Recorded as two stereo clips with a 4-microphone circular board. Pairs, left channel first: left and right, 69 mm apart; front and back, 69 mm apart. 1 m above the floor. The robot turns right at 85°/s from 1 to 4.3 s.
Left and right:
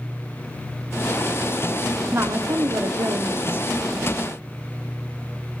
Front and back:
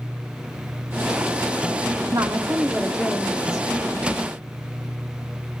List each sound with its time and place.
2.1 s a woman speaking: 150° right, 2 m; by 3.6 s 20° right, 2 m